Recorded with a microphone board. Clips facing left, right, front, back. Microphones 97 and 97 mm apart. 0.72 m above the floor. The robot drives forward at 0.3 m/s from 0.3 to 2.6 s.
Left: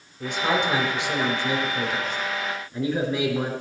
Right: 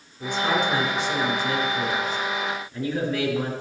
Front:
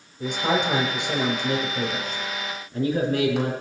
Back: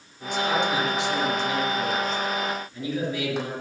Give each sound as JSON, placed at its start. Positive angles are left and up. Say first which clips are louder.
{"t": 0.2, "sound": "a man speaking", "louder": "even, front 1 dB", "azimuth_deg": 15, "distance_m": 4.0}